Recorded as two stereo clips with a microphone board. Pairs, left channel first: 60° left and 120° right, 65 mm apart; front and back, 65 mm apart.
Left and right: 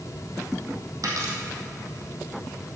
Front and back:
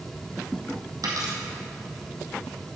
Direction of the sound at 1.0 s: 150° right.